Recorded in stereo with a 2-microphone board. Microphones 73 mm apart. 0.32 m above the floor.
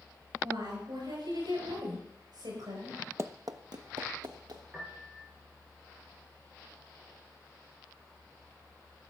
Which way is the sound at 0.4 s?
75° right (ahead or behind).